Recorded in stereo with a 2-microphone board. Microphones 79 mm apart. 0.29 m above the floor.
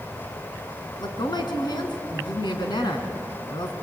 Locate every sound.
1.0 s a woman speaking: 65° left (ahead or behind), 3 m